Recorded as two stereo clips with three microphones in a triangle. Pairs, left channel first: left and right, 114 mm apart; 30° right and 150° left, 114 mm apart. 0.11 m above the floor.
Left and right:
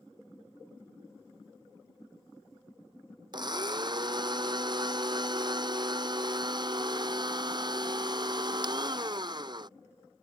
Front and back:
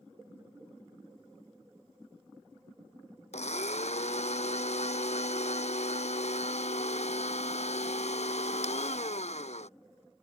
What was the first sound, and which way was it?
A blender, 40° right.